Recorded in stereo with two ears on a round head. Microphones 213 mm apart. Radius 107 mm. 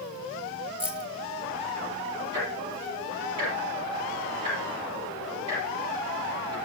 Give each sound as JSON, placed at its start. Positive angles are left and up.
{"t": 0.8, "sound": "keys jangling", "side_deg": -5, "distance_m": 1.2}
{"t": 2.3, "sound": "ticking", "side_deg": -80, "distance_m": 8.5}